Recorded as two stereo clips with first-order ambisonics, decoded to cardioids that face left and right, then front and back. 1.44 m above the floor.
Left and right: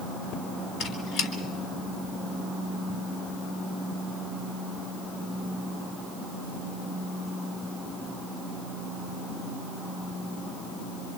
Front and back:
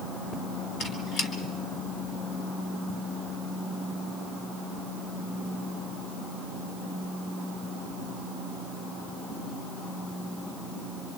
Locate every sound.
0.8 s a squeak: 40° left, 3 m